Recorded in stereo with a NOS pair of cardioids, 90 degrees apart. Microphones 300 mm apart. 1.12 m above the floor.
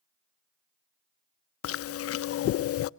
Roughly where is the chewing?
Ahead left.